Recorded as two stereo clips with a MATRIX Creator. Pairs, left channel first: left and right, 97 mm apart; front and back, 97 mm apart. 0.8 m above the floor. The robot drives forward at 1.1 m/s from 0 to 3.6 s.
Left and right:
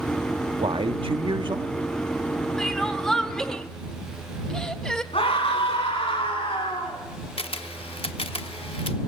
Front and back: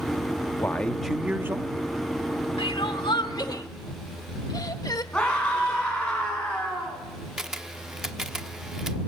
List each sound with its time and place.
0.6 s a man speaking: 65° right, 1.2 m; by 1.9 s 135° right, 1.5 m
2.6 s crying: 5° left, 2 m; by 5.0 s 10° left, 1.2 m
5.1 s a scream: 80° left, 7 m
7.4 s a camera shutter: 95° left, 0.8 m